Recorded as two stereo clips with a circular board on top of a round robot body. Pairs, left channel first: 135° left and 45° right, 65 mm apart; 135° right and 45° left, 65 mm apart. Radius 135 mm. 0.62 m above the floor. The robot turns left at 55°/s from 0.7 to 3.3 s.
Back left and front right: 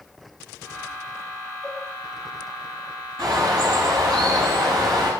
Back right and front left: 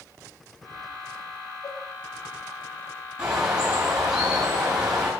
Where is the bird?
30° right, 9.5 m; by 5.1 s 35° right, 9.5 m.